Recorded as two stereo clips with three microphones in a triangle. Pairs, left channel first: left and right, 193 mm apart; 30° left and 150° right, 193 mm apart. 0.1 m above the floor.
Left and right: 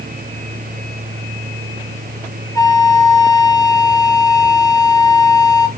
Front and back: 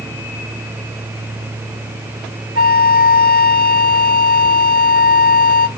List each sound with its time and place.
2.5 s a flute: 25° left, 0.7 m